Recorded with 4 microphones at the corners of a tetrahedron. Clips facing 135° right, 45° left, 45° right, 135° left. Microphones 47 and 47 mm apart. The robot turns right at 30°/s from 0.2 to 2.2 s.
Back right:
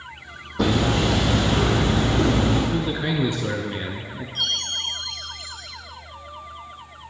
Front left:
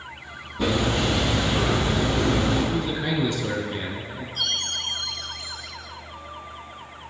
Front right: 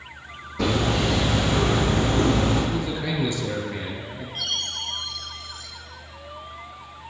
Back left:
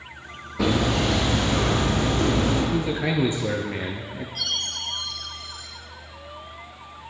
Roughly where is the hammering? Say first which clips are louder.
Back right 2 dB, back left 1 dB; behind right.